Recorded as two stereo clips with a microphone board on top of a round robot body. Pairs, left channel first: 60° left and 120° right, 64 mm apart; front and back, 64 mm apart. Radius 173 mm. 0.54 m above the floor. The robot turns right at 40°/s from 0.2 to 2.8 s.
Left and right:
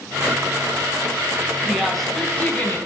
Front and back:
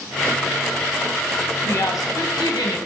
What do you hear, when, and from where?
1.6 s a woman speaking: 40° right, 4 m; by 2.8 s 5° left, 4 m